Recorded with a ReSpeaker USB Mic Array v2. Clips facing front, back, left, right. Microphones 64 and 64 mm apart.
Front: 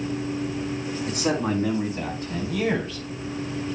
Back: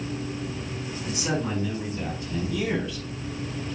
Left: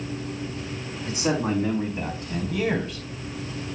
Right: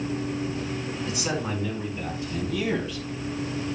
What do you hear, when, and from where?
1.1 s a man speaking: 40° left, 5 m; by 3.1 s 50° left, 4 m